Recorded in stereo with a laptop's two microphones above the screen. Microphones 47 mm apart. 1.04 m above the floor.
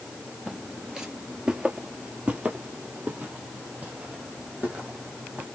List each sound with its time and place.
0.5 s footsteps: 5° right (ahead or behind), 1.0 m; by 5.5 s 25° right (ahead or behind), 3 m